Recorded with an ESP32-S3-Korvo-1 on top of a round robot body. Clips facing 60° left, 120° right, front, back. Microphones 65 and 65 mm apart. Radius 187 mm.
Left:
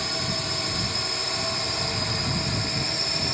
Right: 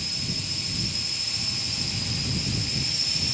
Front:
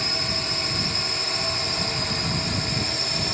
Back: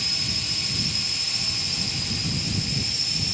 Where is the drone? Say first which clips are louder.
Left 6 dB, front 5 dB; 45° left; by 3.3 s 25° left.